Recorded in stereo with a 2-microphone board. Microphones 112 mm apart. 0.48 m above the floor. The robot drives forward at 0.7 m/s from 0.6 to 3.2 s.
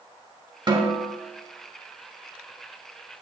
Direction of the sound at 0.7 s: 45° right (ahead or behind).